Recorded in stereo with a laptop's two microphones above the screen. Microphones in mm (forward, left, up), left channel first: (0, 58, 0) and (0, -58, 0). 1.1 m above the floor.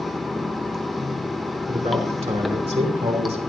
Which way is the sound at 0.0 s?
Centre (ahead or behind).